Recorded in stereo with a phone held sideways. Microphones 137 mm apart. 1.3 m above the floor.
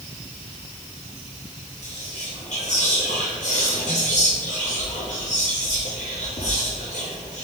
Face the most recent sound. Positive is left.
turn(degrees=60)  # may be behind; listen again after turning